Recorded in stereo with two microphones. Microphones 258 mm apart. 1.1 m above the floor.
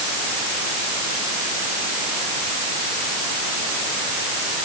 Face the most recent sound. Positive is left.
No sound to turn to.